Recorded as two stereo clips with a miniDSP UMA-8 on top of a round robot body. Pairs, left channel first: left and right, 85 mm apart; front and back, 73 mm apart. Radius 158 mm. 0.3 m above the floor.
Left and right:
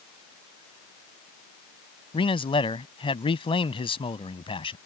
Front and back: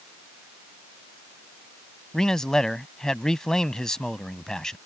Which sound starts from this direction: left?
A man speaking, at 2.1 s.